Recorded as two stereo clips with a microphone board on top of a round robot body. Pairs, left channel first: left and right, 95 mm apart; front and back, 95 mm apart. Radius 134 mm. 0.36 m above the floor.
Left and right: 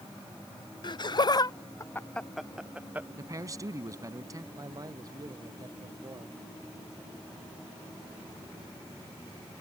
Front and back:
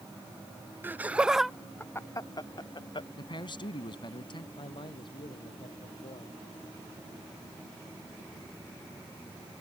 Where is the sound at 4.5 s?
40° right.